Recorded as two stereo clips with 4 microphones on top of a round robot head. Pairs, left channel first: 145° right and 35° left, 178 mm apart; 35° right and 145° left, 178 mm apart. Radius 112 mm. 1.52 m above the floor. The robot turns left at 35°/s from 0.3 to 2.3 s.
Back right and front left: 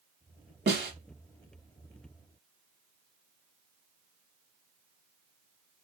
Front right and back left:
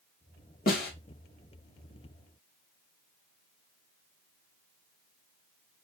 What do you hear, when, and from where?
0.7 s a snare drum: 5° left, 2.5 m; by 0.9 s 5° right, 2.5 m